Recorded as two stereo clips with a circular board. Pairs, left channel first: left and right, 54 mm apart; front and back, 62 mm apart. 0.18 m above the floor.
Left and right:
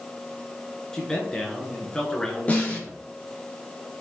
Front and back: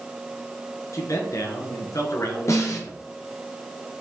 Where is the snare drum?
25° left, 3 m.